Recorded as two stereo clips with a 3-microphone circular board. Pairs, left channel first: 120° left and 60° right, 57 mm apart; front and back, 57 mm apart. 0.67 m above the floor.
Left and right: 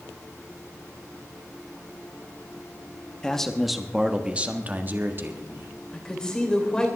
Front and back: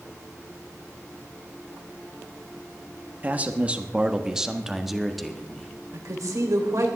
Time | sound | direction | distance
3.2 | a man speaking | straight behind | 1.1 m
5.9 | a woman speaking | 165° right | 2.5 m